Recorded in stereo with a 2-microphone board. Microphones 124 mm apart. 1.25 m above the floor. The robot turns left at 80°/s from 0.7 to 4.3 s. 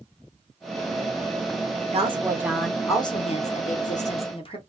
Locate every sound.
1.9 s a woman speaking: 120° right, 0.8 m; by 4.6 s 45° left, 0.8 m